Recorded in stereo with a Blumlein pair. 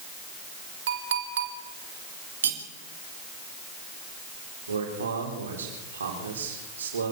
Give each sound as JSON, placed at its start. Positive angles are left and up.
{"t": 0.9, "sound": "a clink", "azimuth_deg": -60, "distance_m": 2.5}
{"t": 2.4, "sound": "cutlery clinking", "azimuth_deg": -65, "distance_m": 3.5}
{"t": 4.7, "sound": "a man speaking", "azimuth_deg": -70, "distance_m": 4.0}